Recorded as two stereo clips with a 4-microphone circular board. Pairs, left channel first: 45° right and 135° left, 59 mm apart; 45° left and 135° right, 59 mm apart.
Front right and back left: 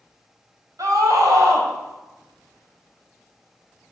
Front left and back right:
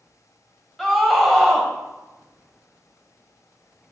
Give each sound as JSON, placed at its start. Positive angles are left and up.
{"t": 0.8, "sound": "a scream", "azimuth_deg": 130, "distance_m": 3.0}